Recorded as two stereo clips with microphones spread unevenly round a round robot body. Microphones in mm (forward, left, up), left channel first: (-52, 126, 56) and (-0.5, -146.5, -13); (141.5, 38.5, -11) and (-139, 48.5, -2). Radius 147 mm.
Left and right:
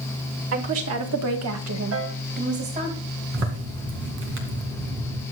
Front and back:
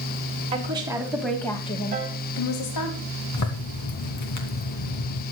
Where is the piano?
115° right, 1.3 m.